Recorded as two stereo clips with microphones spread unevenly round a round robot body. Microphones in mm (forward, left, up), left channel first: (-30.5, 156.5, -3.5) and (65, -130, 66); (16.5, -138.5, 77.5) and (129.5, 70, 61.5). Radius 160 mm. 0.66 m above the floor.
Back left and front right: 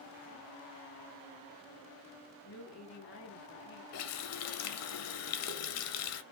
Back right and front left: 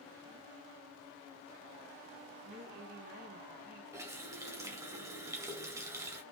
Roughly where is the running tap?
Behind left.